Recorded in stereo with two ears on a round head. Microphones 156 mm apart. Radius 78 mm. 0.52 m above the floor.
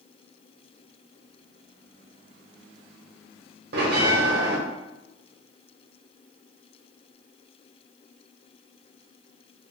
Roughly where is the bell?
Right.